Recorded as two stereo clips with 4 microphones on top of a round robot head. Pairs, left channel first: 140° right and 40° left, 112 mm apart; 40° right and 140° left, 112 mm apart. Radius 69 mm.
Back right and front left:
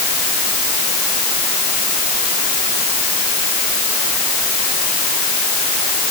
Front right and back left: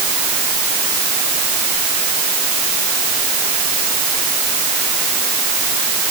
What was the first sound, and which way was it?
Only background noise.